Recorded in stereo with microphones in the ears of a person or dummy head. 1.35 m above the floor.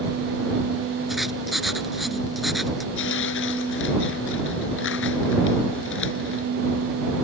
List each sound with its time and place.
1.1 s writing: 5° right (ahead or behind)
3.0 s tearing paper: 75° left (ahead or behind)